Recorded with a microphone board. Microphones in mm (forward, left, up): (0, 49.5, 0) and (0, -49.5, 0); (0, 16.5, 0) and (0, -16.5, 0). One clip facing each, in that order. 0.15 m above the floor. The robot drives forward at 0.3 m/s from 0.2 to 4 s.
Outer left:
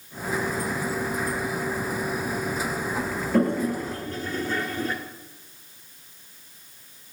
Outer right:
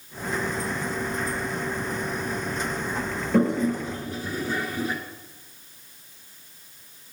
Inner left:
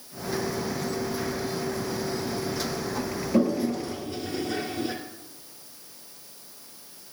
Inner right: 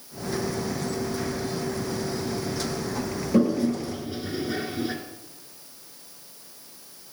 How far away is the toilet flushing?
About 1.2 m.